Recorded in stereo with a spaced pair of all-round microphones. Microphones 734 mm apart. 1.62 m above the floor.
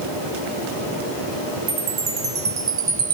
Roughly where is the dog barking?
No dog barking in this recording.